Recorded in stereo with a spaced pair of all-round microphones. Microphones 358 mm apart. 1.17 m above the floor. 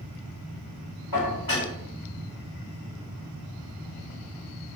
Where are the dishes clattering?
70° left (ahead or behind), 1.4 m.